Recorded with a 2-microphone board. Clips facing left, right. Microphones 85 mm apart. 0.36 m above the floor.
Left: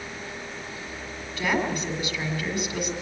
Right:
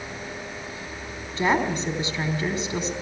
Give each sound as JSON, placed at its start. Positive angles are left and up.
{"t": 1.4, "sound": "a woman speaking", "side_deg": -30, "distance_m": 3.0}